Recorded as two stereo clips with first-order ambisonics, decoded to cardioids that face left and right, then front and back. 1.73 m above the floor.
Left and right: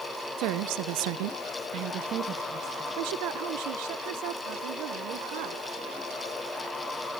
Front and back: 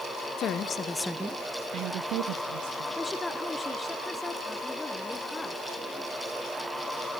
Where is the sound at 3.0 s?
80° right, 1.3 m.